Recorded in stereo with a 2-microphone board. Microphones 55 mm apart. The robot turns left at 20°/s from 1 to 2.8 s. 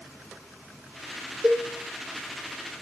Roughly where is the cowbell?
Right.